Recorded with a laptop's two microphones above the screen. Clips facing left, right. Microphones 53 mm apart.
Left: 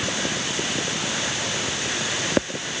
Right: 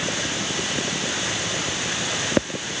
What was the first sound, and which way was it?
Only background noise.